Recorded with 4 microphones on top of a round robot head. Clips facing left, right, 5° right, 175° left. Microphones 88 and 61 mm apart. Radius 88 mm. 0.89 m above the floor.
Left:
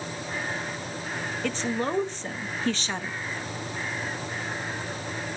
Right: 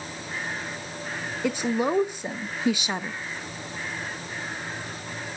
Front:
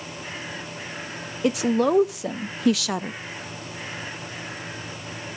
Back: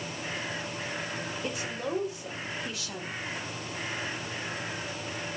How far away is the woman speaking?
About 0.8 m.